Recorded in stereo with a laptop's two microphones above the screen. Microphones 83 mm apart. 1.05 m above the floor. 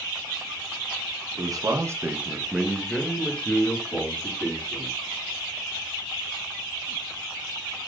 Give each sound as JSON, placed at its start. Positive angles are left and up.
{"t": 1.4, "sound": "a man speaking", "side_deg": -50, "distance_m": 0.7}